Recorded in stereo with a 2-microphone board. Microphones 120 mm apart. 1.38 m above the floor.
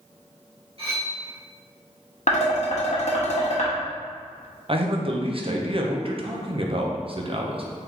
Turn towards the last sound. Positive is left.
turn(degrees=-45)  # may be behind; listen again after turning